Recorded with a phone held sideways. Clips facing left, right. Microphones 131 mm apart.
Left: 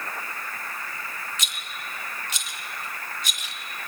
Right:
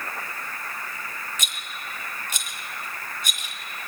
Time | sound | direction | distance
1.4 | a rattle | 50° right (ahead or behind) | 1.0 m